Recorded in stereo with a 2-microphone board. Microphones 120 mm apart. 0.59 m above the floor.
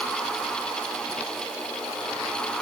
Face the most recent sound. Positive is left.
No sound to turn to.